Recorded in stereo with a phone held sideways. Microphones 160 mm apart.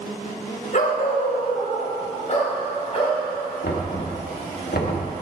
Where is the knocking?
70° left (ahead or behind), 1.6 m.